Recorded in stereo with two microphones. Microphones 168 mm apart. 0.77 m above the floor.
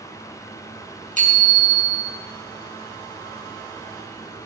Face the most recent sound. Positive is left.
turn(degrees=-50)  # may be behind; listen again after turning